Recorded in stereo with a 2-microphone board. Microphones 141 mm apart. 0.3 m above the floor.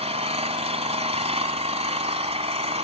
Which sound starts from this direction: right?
An engine running, at 0.0 s.